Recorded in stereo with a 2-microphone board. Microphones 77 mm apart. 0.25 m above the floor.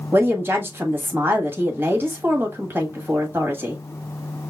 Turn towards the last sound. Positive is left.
turn(degrees=-30)  # may be behind; listen again after turning